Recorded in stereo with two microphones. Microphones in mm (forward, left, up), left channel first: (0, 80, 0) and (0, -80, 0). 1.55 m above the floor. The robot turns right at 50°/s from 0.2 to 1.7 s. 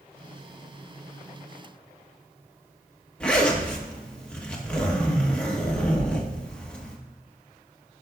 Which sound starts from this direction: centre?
A zipper, at 3.2 s.